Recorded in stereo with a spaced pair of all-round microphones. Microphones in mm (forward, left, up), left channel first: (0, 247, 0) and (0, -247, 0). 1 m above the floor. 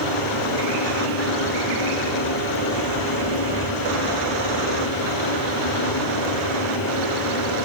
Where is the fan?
45° left (ahead or behind), 8.5 m.